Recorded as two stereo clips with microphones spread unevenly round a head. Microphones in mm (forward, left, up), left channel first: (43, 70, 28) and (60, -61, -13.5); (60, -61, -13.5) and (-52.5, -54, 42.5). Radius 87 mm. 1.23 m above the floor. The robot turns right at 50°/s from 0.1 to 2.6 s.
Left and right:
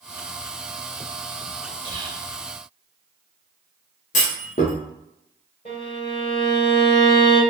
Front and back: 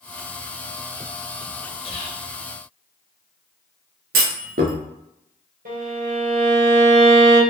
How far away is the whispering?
About 1.1 m.